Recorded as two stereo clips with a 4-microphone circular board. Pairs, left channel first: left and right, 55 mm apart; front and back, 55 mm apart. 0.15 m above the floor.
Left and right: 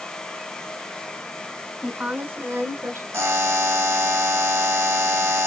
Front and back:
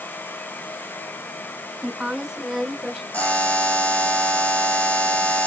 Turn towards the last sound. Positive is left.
turn(degrees=-60)